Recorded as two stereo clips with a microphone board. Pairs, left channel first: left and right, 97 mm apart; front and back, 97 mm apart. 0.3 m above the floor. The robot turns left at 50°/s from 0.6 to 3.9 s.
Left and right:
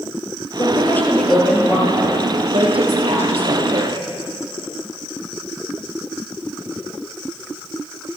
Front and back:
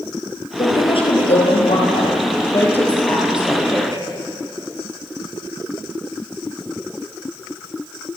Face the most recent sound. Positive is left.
turn(degrees=-125)